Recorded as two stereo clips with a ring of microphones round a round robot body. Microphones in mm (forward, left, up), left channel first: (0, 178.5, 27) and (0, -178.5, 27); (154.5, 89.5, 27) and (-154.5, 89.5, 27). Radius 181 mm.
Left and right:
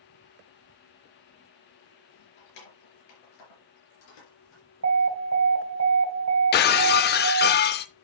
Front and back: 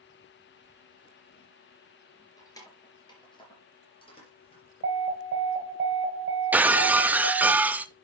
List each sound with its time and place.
2.4 s keys jangling: 80° left, 4 m; by 4.6 s 70° left, 5.5 m
4.8 s an alarm: 130° right, 1.5 m
6.5 s breaking glass: 100° left, 0.6 m